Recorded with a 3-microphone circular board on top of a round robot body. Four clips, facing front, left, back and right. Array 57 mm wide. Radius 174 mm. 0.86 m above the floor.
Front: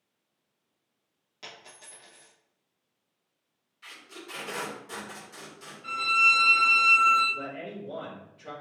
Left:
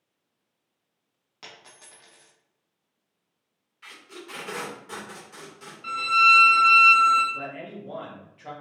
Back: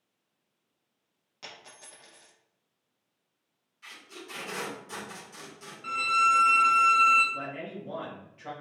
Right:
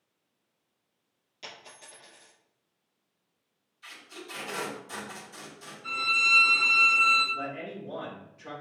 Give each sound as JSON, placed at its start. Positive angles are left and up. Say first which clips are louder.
{"t": 1.4, "sound": "a dropped coin", "louder": "right 1 dB, even", "azimuth_deg": 100, "distance_m": 1.4}
{"t": 3.8, "sound": "tape being pulled", "louder": "left 2 dB, front 1 dB", "azimuth_deg": 85, "distance_m": 2.0}
{"t": 5.8, "sound": "a violin", "louder": "left 8 dB, even", "azimuth_deg": 125, "distance_m": 1.7}
{"t": 7.3, "sound": "a man speaking", "louder": "even, even", "azimuth_deg": 140, "distance_m": 2.0}